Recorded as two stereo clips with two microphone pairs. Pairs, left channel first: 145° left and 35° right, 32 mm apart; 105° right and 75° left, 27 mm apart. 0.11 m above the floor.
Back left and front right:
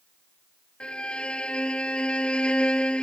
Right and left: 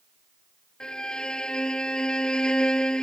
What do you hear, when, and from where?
0.8 s a violin: 160° right